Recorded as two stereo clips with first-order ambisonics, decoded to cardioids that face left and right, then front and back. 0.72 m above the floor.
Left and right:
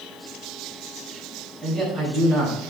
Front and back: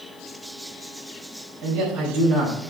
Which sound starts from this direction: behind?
A man speaking, at 1.6 s.